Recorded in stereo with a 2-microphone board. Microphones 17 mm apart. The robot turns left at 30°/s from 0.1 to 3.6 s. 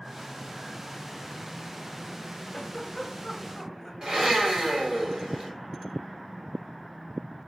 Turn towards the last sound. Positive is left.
turn(degrees=-35)  # may be behind; listen again after turning